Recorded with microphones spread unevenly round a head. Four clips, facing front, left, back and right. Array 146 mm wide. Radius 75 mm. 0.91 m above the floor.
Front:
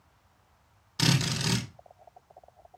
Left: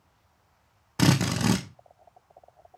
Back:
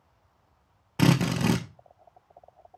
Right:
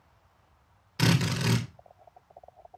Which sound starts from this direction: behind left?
A drill, at 1.0 s.